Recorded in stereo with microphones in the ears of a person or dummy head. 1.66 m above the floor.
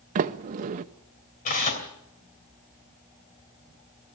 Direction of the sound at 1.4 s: 45° left (ahead or behind).